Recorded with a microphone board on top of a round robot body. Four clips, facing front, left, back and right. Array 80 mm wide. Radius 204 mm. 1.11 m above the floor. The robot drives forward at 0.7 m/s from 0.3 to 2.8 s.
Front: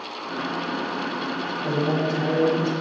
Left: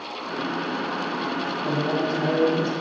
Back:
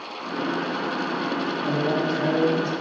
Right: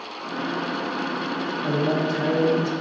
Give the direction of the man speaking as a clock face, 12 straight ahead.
4 o'clock.